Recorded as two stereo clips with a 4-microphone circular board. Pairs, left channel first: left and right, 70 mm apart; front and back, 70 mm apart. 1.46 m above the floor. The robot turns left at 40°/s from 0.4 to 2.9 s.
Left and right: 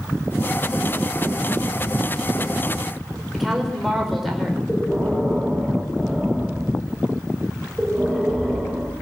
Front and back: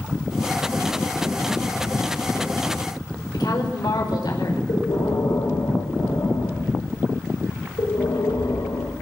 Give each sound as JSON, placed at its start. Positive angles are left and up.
{"t": 3.3, "sound": "a woman speaking", "azimuth_deg": 0, "distance_m": 5.0}
{"t": 4.7, "sound": "breathing", "azimuth_deg": 0, "distance_m": 5.5}